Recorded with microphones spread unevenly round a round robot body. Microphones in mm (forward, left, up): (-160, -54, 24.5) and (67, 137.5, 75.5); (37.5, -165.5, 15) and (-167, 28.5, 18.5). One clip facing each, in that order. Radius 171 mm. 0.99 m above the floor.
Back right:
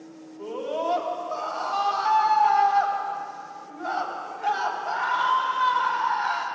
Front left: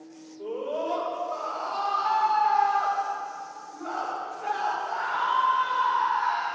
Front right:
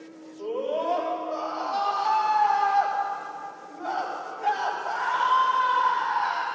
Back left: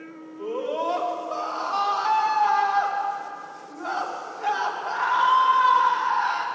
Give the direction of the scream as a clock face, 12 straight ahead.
5 o'clock.